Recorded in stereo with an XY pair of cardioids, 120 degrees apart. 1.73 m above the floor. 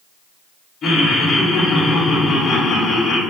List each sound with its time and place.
0.8 s laughter: 45° left, 3 m